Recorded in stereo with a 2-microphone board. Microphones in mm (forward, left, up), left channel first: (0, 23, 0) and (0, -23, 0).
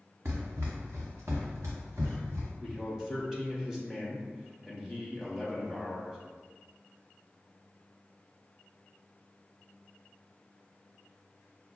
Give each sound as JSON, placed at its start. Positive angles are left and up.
{"t": 0.2, "sound": "running footsteps", "side_deg": -55, "distance_m": 1.0}
{"t": 2.6, "sound": "a man speaking", "side_deg": -10, "distance_m": 1.0}